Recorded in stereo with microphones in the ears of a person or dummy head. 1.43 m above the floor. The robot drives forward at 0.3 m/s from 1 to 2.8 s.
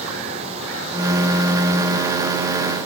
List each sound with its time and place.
Only background noise.